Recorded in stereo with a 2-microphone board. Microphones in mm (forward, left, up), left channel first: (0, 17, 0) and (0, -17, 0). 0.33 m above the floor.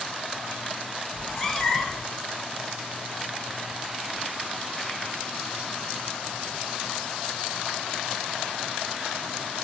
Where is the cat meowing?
10° left (ahead or behind), 1.1 m.